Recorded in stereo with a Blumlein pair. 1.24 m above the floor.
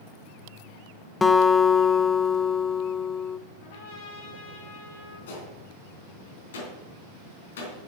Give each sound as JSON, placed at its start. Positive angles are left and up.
{"t": 1.2, "sound": "a guitar", "azimuth_deg": 15, "distance_m": 0.7}
{"t": 3.6, "sound": "a trumpet", "azimuth_deg": 55, "distance_m": 4.5}
{"t": 5.3, "sound": "a gunshot", "azimuth_deg": 60, "distance_m": 3.5}